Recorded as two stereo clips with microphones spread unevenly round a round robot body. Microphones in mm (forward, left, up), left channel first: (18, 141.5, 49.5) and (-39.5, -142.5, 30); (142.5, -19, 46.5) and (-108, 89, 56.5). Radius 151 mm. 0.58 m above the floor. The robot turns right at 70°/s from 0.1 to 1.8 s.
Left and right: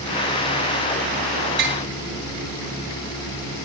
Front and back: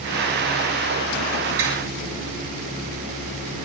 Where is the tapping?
155° right, 7 m; by 1.8 s 145° right, 7 m.